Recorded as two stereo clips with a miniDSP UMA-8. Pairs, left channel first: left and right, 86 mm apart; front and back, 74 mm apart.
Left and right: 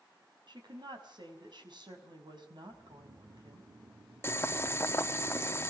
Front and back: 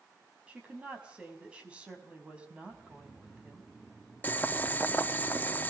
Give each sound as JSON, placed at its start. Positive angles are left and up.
{"t": 0.5, "sound": "a woman speaking", "azimuth_deg": -110, "distance_m": 5.5}
{"t": 2.6, "sound": "snoring", "azimuth_deg": -90, "distance_m": 1.4}
{"t": 4.2, "sound": "boiling", "azimuth_deg": 50, "distance_m": 0.8}